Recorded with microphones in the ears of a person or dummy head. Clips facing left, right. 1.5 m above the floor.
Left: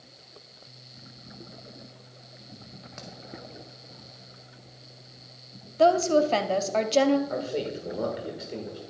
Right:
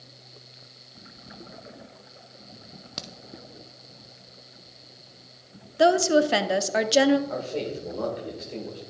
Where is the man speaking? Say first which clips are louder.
Even; 15° left (ahead or behind), 2 m.